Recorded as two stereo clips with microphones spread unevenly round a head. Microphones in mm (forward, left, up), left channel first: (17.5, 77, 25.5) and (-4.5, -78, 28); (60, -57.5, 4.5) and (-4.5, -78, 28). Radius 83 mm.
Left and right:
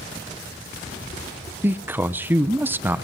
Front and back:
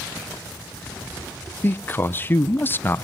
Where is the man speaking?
20° right, 1.0 m.